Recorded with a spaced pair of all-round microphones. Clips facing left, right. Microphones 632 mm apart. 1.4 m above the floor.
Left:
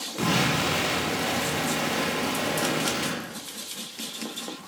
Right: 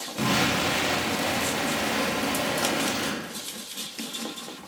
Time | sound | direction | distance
0.2 | an explosion | 20° right (ahead or behind) | 2 m